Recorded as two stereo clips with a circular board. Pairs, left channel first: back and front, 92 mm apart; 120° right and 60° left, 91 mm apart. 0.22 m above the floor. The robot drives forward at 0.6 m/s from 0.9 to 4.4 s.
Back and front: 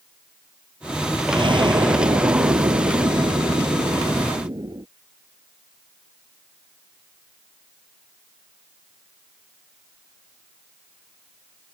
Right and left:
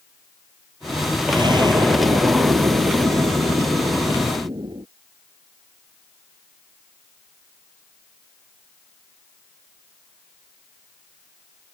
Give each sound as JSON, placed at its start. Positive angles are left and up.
{"t": 1.3, "sound": "an explosion", "azimuth_deg": 25}